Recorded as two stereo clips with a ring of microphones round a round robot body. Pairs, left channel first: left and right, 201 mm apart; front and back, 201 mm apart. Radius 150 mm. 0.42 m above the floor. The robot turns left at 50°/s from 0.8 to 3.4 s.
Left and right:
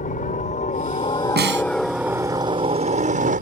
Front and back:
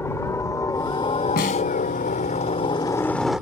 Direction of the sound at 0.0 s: 70° left.